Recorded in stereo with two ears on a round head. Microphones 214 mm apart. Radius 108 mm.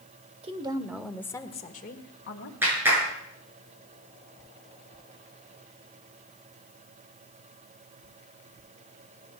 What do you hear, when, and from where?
0.4 s a woman speaking: 25° right (ahead or behind), 1.6 m; by 2.5 s 60° left (ahead or behind), 1.9 m
2.6 s a clap: 10° right (ahead or behind), 7 m